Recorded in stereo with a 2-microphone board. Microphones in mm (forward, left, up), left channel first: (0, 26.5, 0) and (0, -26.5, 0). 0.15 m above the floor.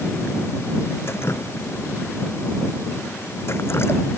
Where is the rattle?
No rattle in this recording.